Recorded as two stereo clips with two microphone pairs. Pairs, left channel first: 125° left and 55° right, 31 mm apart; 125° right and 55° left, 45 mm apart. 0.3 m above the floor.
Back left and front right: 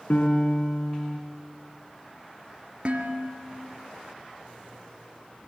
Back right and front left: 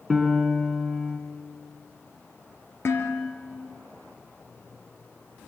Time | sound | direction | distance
0.1 | a piano | 140° left | 3 m
2.9 | dishes clattering | 105° right | 4 m